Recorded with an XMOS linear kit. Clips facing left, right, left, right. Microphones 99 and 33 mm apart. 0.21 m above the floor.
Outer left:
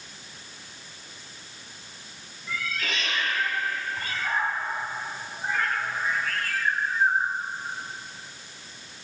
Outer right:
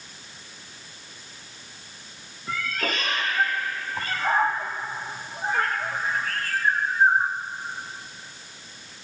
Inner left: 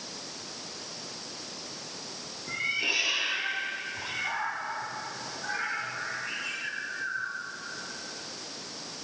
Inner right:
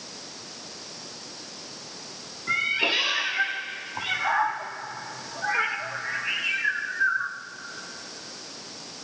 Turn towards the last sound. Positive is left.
turn(degrees=-40)  # may be behind; listen again after turning